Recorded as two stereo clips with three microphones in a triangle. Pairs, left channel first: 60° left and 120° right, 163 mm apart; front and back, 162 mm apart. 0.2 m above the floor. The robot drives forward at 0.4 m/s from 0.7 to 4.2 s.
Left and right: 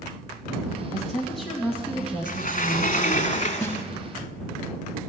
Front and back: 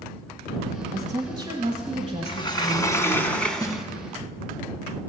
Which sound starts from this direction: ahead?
A snare drum, at 3.6 s.